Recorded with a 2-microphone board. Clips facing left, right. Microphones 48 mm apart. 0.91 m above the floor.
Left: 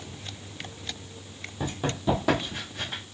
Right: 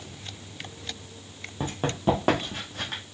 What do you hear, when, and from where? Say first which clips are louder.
1.6 s running footsteps: right 2 dB; 35° right (ahead or behind), 1.5 m; by 3.0 s 60° right (ahead or behind), 1.9 m